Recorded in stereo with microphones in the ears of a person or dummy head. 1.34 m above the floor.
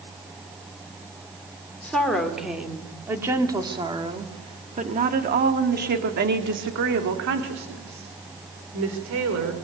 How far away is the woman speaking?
About 3.5 m.